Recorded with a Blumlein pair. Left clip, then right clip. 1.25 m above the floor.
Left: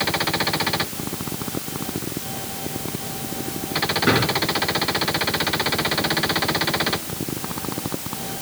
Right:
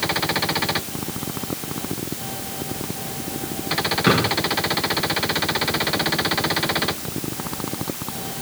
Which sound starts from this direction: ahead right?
A drawer, at 4.1 s.